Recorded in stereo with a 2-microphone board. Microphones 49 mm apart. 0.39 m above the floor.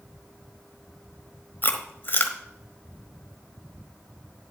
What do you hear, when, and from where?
1.6 s chewing: 40° left (ahead or behind), 1.0 m